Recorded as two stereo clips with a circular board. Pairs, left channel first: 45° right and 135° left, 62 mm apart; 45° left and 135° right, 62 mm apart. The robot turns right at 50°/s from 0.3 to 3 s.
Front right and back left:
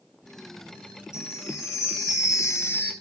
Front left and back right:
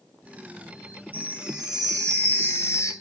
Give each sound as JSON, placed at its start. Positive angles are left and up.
{"t": 1.1, "sound": "a chime", "azimuth_deg": -75, "distance_m": 2.5}